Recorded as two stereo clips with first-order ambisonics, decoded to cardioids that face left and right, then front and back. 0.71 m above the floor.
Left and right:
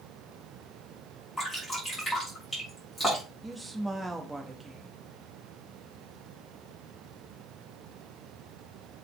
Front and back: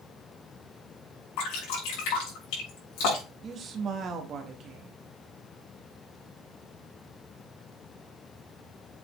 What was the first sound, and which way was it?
Dripping, straight ahead.